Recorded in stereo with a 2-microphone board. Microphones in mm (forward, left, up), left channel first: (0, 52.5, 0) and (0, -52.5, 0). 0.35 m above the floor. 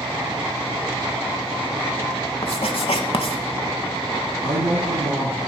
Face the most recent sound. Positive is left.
turn(degrees=-75)  # may be behind; listen again after turning